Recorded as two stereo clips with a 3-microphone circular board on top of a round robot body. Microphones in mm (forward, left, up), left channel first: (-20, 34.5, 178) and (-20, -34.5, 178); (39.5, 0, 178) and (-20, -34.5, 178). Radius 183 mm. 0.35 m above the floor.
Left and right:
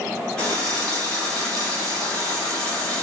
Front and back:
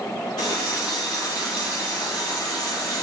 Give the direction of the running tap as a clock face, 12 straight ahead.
12 o'clock.